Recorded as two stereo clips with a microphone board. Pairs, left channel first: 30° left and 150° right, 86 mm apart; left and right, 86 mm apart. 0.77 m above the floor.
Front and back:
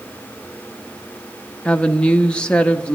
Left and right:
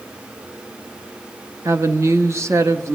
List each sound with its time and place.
1.6 s a woman speaking: 45° right, 1.0 m